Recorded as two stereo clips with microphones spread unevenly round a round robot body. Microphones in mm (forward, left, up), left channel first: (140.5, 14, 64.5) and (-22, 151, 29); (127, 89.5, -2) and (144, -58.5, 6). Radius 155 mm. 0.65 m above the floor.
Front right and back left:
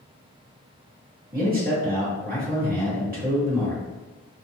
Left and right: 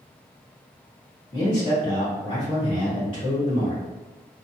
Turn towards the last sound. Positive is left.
turn(degrees=115)